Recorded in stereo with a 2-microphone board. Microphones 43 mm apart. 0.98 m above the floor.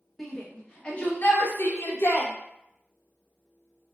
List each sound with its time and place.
0.2 s a shout: 5° left (ahead or behind), 1.1 m; by 2.3 s 80° left, 0.9 m